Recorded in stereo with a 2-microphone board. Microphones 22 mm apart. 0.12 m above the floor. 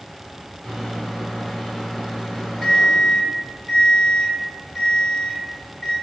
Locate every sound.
0.6 s a microwave: 25° left (ahead or behind), 1.7 m